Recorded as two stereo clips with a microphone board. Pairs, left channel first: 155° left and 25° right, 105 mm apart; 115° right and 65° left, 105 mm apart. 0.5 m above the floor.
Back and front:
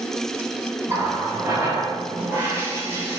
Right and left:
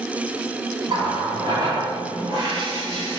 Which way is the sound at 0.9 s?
35° left.